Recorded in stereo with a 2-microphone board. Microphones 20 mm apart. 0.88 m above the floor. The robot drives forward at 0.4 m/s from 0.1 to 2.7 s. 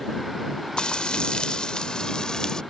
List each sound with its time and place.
0.8 s frying: 45° left (ahead or behind); by 2.6 s 35° left (ahead or behind)